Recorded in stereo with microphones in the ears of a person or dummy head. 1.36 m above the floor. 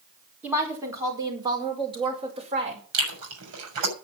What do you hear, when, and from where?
0.4 s a woman speaking: 5° right (ahead or behind), 5 m; by 2.8 s 35° right (ahead or behind), 5.5 m
2.9 s chewing: 75° right (ahead or behind), 6 m